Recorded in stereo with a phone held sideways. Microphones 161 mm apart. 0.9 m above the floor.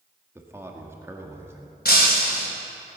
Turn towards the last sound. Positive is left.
turn(degrees=80)